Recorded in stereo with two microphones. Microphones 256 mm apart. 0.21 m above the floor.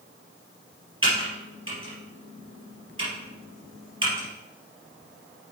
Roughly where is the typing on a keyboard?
Right.